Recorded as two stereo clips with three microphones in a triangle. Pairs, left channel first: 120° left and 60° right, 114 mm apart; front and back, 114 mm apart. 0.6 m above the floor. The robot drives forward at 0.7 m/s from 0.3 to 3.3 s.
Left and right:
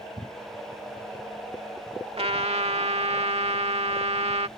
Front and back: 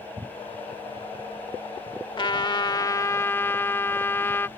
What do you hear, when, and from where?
2.2 s a trumpet: 35° right; by 4.5 s 65° right